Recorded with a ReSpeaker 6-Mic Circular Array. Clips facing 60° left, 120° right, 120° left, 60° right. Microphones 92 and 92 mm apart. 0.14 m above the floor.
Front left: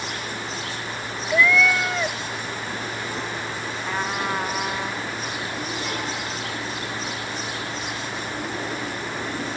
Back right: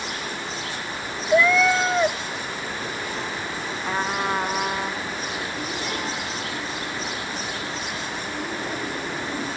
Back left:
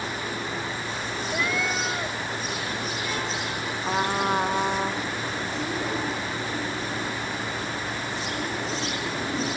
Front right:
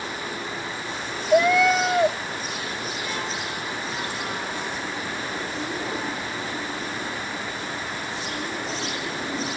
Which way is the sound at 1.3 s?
55° right.